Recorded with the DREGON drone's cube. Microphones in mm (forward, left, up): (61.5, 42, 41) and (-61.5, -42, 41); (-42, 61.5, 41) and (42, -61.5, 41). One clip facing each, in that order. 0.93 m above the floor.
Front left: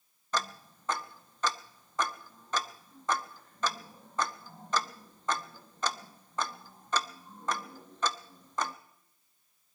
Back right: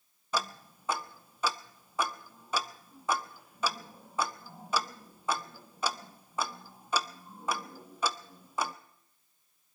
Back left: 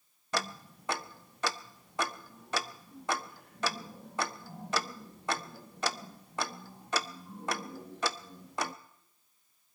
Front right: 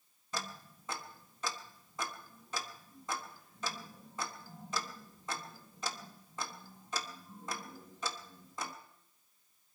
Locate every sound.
0.3 s ticking: 135° left, 0.6 m